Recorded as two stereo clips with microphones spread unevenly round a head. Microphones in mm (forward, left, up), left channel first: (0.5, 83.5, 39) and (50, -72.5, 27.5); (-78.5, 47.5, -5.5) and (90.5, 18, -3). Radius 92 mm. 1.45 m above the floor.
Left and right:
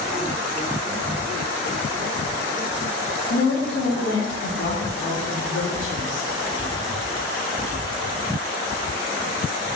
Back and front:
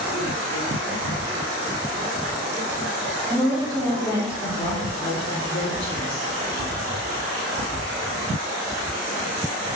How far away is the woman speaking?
About 2.5 m.